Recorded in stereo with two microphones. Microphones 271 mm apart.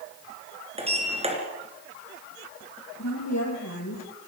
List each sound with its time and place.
0.8 s a sliding door: 20° right (ahead or behind), 3.5 m
3.0 s a woman speaking: 80° left, 7 m